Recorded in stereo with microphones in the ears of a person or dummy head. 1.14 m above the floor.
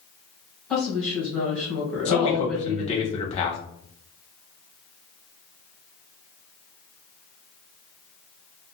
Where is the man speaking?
30° left (ahead or behind), 0.7 m.